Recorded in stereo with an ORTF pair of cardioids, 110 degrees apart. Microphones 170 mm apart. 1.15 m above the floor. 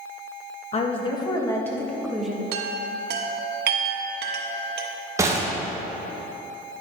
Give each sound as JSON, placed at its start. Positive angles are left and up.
{"t": 0.7, "sound": "a woman speaking", "azimuth_deg": 35, "distance_m": 1.4}
{"t": 2.5, "sound": "a chime", "azimuth_deg": -65, "distance_m": 1.1}
{"t": 5.2, "sound": "a gunshot", "azimuth_deg": -15, "distance_m": 1.2}